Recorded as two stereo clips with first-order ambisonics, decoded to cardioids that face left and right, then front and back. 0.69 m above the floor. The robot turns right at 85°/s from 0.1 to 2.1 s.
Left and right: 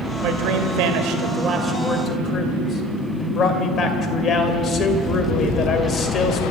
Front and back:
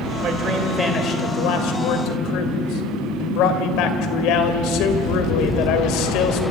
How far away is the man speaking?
About 2.5 m.